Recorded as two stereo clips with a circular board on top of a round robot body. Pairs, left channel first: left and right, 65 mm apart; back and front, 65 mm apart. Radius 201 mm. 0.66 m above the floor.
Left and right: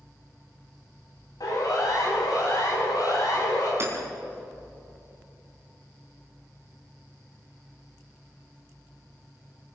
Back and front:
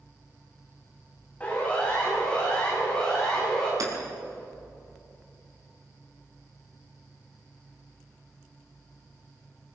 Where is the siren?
110° left, 8.5 m; by 3.7 s 100° left, 11 m.